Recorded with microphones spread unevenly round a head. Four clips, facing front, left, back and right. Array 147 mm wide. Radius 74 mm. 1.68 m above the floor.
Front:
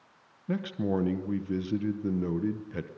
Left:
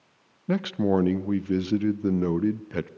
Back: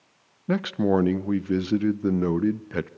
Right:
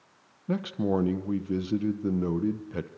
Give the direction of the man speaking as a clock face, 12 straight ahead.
7 o'clock.